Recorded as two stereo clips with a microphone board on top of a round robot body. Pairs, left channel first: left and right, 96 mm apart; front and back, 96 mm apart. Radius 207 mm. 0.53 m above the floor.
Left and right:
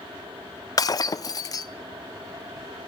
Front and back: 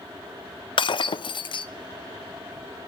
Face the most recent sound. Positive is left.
turn(degrees=35)